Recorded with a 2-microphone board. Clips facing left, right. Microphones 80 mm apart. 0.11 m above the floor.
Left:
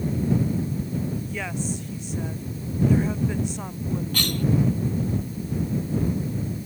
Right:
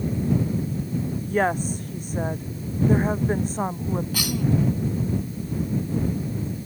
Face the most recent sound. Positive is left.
turn(degrees=-5)  # may be behind; listen again after turning